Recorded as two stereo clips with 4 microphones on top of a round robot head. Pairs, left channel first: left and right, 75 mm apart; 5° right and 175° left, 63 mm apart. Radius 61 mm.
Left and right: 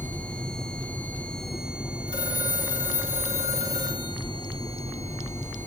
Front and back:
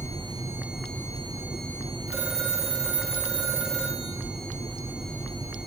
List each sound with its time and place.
2.1 s a phone ringing: 105° left, 5 m